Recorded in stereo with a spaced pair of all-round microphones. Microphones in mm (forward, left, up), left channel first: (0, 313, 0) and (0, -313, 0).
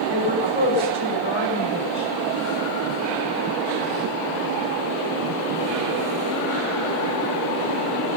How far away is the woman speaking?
About 6 m.